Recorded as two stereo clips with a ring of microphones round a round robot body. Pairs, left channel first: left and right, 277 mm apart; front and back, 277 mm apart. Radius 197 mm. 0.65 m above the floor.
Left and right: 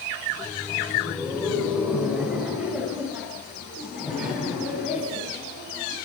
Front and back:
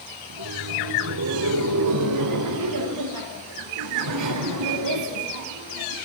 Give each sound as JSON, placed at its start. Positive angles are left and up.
{"t": 0.3, "sound": "laughter", "azimuth_deg": -175, "distance_m": 1.8}